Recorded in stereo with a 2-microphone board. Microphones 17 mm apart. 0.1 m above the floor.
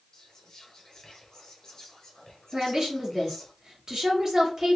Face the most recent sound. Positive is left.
turn(degrees=-45)  # may be behind; listen again after turning